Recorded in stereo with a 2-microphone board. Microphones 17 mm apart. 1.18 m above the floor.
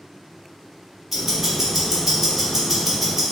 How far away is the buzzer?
No buzzer in this recording.